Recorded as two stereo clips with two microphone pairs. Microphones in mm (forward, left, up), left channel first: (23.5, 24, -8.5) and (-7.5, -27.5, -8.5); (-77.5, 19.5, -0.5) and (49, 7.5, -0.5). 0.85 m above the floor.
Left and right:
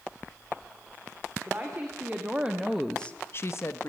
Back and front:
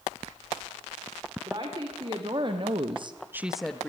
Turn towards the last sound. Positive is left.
turn(degrees=95)